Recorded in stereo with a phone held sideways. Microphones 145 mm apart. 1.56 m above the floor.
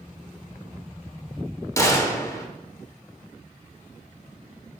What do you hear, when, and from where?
1.8 s a gunshot: 20° left (ahead or behind), 1.5 m